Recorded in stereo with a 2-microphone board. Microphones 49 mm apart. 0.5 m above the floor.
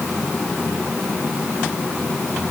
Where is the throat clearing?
No throat clearing in this recording.